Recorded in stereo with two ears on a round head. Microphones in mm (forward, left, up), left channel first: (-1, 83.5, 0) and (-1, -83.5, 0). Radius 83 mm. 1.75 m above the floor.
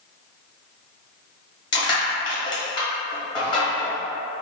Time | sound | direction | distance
1.7 | crushing | 25° left (ahead or behind) | 1.0 m